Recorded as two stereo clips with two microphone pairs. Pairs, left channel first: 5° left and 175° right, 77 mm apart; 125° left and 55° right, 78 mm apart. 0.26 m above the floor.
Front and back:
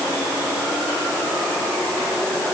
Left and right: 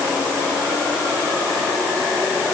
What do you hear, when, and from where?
Only background noise.